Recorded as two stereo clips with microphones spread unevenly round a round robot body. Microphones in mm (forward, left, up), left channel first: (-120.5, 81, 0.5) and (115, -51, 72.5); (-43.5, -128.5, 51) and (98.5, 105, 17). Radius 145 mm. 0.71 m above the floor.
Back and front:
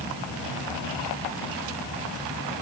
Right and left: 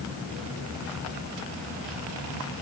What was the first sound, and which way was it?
Only background noise.